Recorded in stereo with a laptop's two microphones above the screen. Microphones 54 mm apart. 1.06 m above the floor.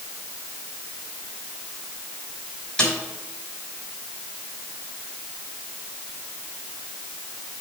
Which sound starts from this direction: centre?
A snare drum, at 2.8 s.